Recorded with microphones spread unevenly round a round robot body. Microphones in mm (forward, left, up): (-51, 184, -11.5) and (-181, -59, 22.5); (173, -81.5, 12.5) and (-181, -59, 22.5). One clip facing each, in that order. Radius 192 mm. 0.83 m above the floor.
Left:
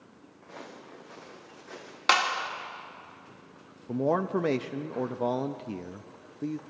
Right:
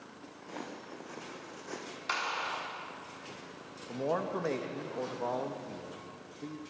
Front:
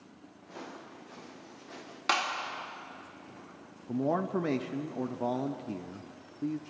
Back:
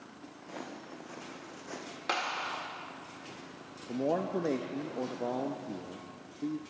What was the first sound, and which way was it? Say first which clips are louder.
Footsteps: right 2 dB, back 1 dB; 160° right.